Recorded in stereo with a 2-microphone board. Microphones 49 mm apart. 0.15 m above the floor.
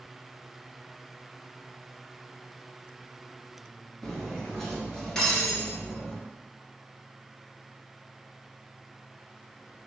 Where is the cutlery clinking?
10° left (ahead or behind), 1.5 m.